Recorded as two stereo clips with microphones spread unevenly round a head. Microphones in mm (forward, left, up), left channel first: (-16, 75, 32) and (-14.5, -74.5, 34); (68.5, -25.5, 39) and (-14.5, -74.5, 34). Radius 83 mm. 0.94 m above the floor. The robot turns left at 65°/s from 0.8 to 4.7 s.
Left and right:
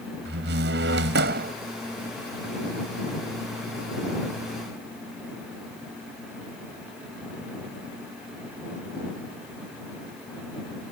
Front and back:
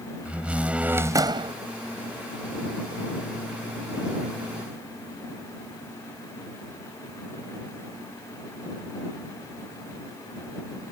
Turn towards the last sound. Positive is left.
turn(degrees=35)